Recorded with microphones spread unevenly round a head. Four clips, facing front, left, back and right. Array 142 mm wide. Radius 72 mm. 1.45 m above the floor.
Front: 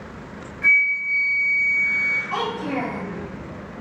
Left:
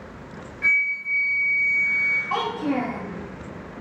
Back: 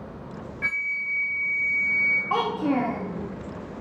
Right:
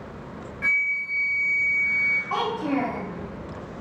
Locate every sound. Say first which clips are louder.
0.6 s a flute: left 2 dB, front 10 dB; 145° right, 0.6 m
2.3 s a child speaking: left 1 dB, back 3 dB; straight behind, 0.8 m